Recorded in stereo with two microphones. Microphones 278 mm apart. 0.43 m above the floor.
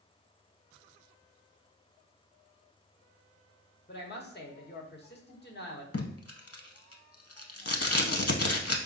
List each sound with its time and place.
3.9 s a woman speaking: 35° left (ahead or behind), 0.9 m
5.9 s tape being pulled: 60° left (ahead or behind), 0.6 m